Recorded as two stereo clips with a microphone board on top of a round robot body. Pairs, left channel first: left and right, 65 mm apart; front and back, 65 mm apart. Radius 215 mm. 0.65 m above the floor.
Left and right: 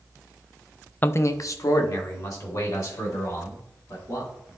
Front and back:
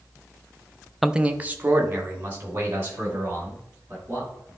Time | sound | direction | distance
1.0 | a man speaking | 95° left | 0.6 m